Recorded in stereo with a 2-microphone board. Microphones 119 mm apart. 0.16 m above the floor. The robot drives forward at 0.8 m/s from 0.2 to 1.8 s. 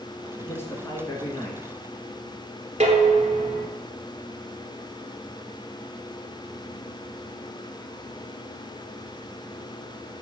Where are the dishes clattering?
60° right (ahead or behind), 1.6 m.